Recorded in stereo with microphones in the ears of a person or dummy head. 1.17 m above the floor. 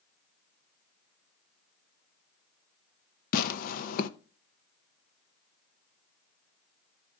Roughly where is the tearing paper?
Left.